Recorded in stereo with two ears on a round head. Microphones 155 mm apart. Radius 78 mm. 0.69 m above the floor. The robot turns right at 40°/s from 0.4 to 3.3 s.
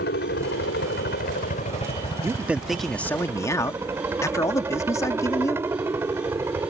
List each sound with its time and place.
0.0 s a helicopter: 80° left; by 6.7 s 165° right
2.2 s a man speaking: 20° right; by 5.6 s 20° left